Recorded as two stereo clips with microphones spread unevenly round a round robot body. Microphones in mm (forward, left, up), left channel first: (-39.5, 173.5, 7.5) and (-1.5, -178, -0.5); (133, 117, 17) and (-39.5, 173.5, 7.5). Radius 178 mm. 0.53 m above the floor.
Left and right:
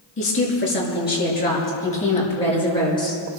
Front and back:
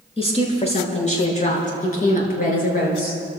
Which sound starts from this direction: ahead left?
A woman speaking, at 0.2 s.